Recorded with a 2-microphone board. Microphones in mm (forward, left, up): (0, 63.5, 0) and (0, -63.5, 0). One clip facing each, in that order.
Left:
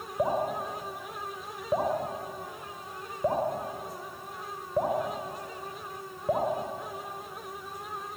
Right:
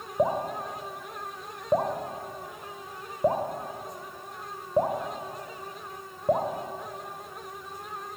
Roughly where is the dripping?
Centre.